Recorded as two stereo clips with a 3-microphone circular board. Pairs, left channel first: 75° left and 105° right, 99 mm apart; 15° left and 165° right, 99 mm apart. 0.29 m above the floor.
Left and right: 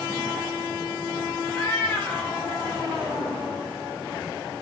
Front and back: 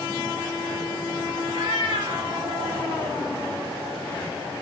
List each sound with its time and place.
1.5 s a cat meowing: 160° left, 4.5 m; by 3.2 s 170° left, 5.5 m